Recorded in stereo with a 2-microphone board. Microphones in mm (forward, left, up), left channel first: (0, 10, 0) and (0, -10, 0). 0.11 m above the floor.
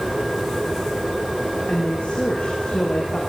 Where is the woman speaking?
65° left (ahead or behind), 6.5 m.